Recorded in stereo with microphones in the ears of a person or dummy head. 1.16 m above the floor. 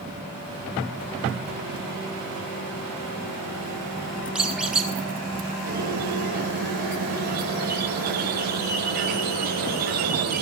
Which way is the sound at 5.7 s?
50° right (ahead or behind).